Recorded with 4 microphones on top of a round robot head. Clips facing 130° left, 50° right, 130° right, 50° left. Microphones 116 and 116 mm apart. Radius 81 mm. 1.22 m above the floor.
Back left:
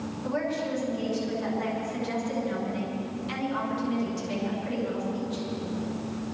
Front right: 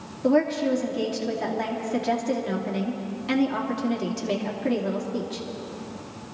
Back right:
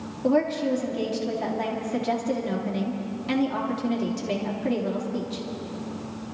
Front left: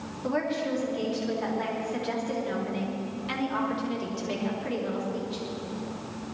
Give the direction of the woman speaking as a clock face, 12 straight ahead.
3 o'clock.